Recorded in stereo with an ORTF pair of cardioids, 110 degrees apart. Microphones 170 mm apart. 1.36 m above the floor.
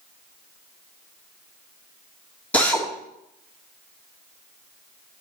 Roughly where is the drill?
Ahead.